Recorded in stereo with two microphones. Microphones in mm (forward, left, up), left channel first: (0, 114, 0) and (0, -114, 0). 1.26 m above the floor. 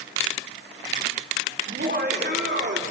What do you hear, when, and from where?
1.7 s laughter: 45° right (ahead or behind), 4.5 m; by 2.8 s 50° right (ahead or behind), 4 m